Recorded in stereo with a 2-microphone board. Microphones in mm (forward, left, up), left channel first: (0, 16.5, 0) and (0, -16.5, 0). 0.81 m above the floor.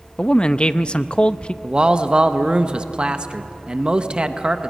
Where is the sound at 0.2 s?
30° left (ahead or behind), 0.5 m.